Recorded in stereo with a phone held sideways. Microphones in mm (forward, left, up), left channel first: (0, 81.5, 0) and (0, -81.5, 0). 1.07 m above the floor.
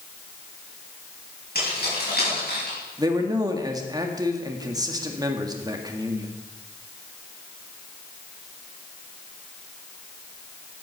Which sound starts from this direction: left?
Keys jangling, at 1.6 s.